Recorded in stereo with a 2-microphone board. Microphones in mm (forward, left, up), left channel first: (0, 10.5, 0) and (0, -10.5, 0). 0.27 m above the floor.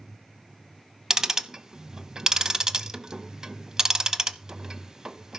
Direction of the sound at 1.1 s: 25° right (ahead or behind).